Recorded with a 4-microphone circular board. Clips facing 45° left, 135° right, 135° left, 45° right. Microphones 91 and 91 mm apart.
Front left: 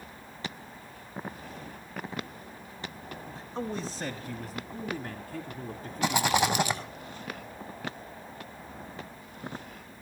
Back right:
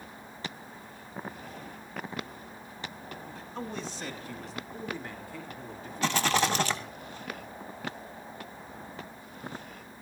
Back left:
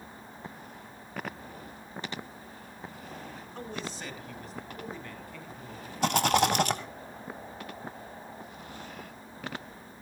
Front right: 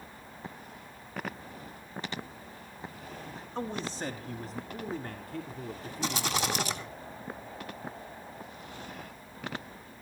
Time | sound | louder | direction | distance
3.4 | a man speaking | front left 4 dB, front right 6 dB | straight ahead | 1.1 m
6.0 | a rattle | front left 1 dB, back left 7 dB | 120° left | 1.9 m